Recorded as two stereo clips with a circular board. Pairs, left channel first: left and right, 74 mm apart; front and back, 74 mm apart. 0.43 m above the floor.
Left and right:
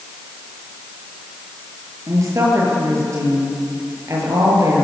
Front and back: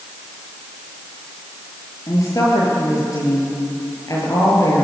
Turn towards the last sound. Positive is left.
turn(degrees=-40)